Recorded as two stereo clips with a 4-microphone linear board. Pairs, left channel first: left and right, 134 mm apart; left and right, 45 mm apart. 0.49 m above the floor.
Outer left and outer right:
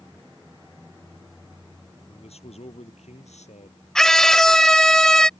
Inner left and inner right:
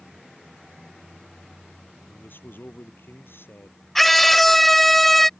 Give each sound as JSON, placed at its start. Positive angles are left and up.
{"t": 2.1, "sound": "a man speaking", "side_deg": 50}
{"t": 4.0, "sound": "a scream", "side_deg": 5}